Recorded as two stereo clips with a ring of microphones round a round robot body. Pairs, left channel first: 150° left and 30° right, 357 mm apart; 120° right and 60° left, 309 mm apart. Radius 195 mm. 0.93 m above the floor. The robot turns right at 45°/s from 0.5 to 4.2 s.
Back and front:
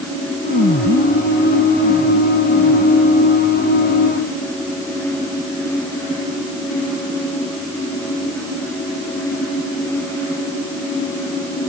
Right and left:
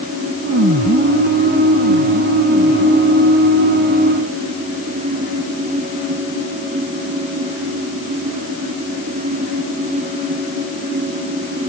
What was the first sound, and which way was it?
Only background noise.